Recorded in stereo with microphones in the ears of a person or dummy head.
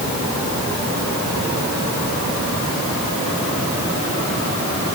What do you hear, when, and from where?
Only background noise.